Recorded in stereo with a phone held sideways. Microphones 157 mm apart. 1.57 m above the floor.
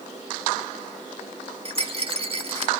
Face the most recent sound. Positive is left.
turn(degrees=-40)  # may be behind; listen again after turning